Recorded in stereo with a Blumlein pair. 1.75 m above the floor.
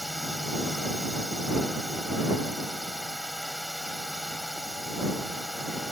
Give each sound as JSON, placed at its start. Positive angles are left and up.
{"t": 0.0, "sound": "a drone", "azimuth_deg": 5}